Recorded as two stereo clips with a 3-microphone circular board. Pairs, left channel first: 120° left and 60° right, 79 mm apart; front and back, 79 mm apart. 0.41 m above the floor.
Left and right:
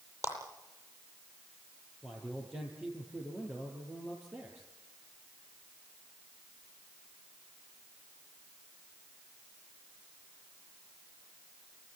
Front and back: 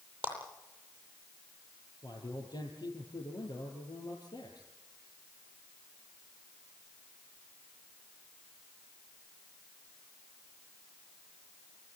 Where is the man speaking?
5° left, 5.5 m.